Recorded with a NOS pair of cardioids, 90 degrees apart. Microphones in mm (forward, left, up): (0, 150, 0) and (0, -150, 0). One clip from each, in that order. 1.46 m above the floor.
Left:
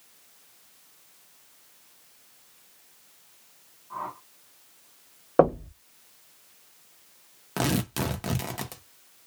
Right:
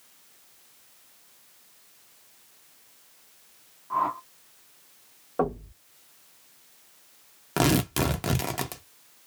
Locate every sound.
3.9 s a whoosh: 35° right, 0.6 m
5.4 s knocking: 60° left, 1.0 m
7.6 s tearing paper: 20° right, 0.7 m